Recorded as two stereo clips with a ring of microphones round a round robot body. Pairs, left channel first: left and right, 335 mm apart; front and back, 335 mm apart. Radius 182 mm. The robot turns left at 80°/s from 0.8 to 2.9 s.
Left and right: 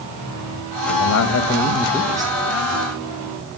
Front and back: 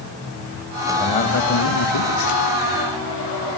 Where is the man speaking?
90° left, 1.8 m; by 2.4 s 25° right, 1.8 m.